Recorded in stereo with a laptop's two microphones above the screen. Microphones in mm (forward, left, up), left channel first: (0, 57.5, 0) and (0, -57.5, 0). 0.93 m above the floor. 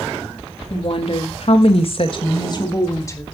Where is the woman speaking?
55° left (ahead or behind), 1.7 m; by 3.2 s 25° left (ahead or behind), 1.9 m.